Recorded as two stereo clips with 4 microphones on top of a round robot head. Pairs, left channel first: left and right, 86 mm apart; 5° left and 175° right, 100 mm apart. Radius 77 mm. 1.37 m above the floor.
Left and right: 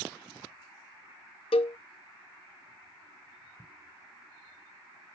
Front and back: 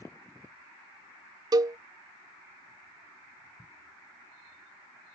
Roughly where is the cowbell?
Behind left.